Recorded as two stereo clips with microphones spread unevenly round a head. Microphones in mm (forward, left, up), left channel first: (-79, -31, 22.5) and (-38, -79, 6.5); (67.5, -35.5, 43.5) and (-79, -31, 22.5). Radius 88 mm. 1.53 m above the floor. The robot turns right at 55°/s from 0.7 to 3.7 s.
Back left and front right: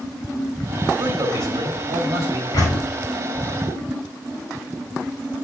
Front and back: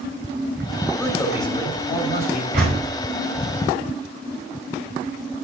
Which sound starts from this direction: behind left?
A door slam, at 2.5 s.